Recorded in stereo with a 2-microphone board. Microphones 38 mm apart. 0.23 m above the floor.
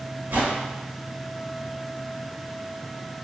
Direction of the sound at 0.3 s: 55° right (ahead or behind).